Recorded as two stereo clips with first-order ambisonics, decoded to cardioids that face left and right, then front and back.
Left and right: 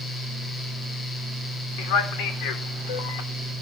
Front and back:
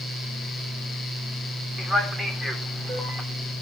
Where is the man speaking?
100° left, 3 m.